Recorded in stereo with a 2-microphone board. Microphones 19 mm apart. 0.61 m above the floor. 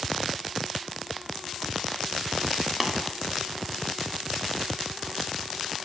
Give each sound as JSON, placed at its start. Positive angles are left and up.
{"t": 2.8, "sound": "tapping", "side_deg": -5, "distance_m": 0.5}